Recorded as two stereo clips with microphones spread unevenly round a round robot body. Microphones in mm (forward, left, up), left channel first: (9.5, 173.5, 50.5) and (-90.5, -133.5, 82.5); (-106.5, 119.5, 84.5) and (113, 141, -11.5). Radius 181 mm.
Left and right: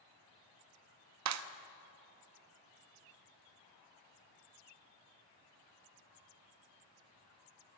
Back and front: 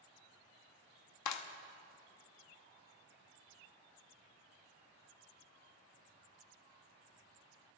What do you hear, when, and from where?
1.2 s a clap: 150° right, 0.9 m